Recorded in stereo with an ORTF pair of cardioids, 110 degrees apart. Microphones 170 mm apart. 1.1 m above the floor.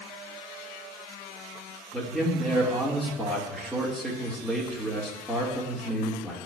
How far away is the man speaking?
About 1.8 m.